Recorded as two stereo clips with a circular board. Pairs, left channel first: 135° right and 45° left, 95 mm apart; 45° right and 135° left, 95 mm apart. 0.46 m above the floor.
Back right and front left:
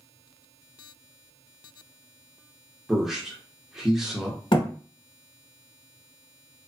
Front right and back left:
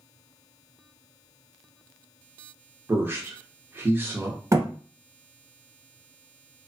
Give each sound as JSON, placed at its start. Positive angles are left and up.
{"t": 2.9, "sound": "a man speaking", "azimuth_deg": 125, "distance_m": 0.8}
{"t": 4.5, "sound": "a thud", "azimuth_deg": -165, "distance_m": 0.8}